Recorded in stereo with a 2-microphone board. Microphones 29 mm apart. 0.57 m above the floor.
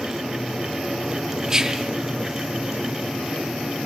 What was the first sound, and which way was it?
Whispering, 20° right (ahead or behind).